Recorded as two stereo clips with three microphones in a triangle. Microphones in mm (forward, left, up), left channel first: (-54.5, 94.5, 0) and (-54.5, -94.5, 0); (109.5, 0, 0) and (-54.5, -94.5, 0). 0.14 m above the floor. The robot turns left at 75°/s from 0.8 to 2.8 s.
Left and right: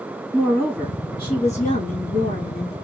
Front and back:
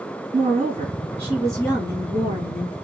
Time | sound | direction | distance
0.3 | a woman speaking | 170° left | 2 m